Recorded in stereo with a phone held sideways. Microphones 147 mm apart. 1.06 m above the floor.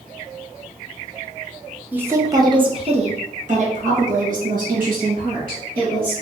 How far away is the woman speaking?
About 1.0 m.